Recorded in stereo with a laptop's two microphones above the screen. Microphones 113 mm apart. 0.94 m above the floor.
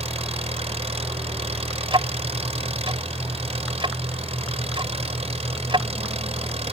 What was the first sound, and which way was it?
An engine running, 65° right (ahead or behind).